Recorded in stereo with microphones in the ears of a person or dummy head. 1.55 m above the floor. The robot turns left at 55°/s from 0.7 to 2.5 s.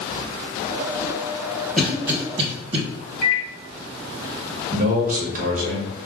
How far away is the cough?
About 1.5 m.